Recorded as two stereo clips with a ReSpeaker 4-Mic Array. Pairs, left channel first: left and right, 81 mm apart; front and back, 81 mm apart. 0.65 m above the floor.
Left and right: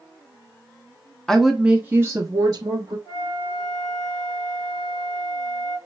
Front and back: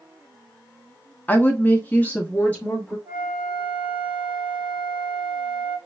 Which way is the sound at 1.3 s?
15° left.